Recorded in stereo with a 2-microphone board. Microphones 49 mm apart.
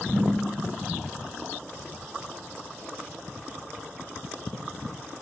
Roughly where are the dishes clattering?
Left.